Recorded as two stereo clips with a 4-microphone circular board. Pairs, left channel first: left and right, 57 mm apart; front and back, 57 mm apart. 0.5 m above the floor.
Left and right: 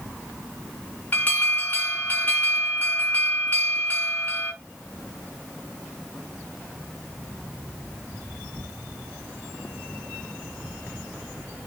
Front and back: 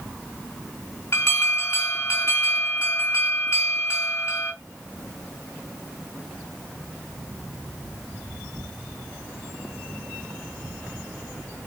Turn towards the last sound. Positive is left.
turn(degrees=30)